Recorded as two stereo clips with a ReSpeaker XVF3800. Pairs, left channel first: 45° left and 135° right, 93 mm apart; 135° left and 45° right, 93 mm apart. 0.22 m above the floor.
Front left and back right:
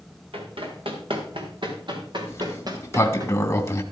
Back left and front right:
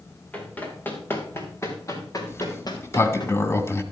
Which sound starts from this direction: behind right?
Running footsteps, at 0.3 s.